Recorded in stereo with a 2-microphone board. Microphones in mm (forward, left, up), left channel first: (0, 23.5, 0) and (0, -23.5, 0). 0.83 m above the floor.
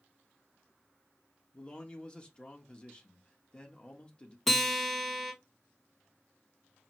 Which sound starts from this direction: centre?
A guitar, at 4.5 s.